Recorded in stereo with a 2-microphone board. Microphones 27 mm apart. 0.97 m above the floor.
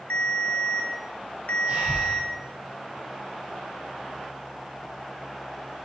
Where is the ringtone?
80° left, 1.1 m.